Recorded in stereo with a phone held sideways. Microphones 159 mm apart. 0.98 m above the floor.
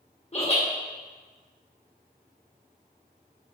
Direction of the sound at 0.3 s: 45° left (ahead or behind).